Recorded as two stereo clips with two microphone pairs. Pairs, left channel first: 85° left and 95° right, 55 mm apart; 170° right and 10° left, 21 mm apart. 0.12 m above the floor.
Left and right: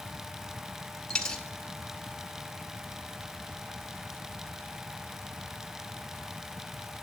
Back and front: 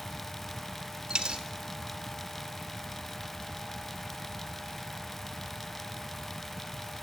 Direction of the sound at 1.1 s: 15° left.